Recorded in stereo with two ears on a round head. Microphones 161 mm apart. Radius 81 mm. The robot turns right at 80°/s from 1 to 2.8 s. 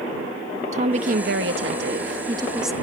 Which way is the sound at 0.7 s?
135° right.